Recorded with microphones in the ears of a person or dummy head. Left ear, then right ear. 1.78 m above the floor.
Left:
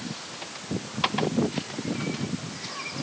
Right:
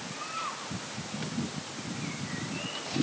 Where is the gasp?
No gasp in this recording.